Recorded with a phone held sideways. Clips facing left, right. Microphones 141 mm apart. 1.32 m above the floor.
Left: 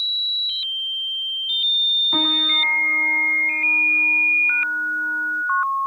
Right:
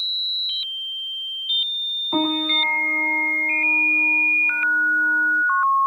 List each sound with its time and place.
2.1 s a piano: 30° right (ahead or behind)